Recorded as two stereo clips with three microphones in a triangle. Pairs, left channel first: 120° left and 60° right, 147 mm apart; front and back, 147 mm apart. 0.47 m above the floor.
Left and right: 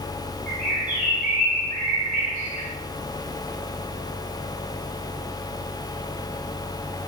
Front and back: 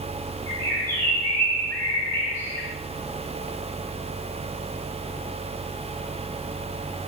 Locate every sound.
0.5 s a bird: 70° right, 1.0 m